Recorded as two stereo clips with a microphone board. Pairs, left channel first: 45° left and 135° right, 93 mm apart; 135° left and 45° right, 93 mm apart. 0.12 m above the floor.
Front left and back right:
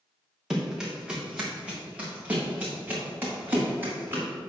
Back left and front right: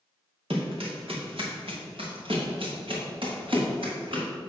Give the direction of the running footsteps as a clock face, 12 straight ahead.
2 o'clock.